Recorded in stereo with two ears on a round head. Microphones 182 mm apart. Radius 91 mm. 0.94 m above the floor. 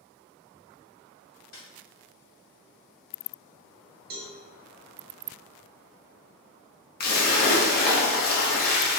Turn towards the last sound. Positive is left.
turn(degrees=45)  # may be behind; listen again after turning